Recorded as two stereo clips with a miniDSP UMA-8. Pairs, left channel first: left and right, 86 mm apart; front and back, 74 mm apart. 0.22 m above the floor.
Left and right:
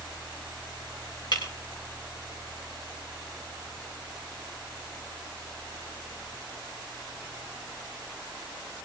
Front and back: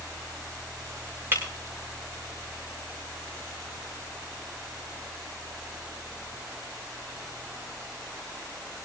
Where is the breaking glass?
120° left, 7 m.